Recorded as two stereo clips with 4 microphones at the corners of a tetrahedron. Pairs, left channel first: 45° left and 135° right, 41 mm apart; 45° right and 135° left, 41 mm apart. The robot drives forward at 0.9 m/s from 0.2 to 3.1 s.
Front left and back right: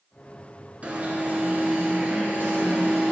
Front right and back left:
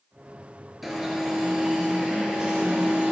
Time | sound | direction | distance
0.8 | an alarm | 140° right | 2.5 m